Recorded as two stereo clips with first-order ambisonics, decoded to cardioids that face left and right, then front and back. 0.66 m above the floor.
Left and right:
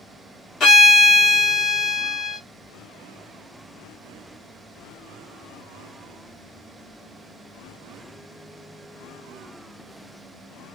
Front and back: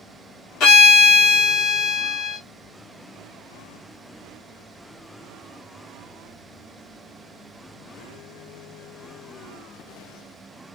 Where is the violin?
30° left, 1.1 m.